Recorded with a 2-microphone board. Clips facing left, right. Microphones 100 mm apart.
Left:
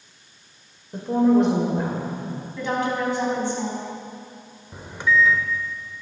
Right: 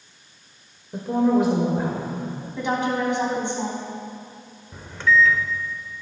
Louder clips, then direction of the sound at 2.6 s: Right 1 dB; 20° right (ahead or behind).